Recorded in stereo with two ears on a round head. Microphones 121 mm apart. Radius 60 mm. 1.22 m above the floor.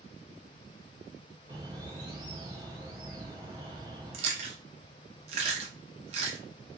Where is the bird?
30° right (ahead or behind), 0.9 m.